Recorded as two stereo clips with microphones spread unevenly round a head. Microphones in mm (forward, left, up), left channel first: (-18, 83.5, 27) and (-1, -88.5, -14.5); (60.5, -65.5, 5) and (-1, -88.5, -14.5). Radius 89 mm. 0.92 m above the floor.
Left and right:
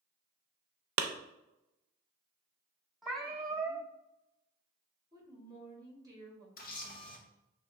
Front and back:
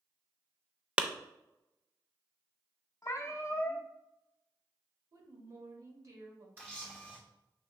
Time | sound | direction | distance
1.0 | a clap | 85° right | 0.5 m
3.0 | a cat meowing | 15° left | 0.6 m
5.1 | a woman speaking | 150° right | 1.6 m
6.6 | a camera shutter | 140° left | 0.9 m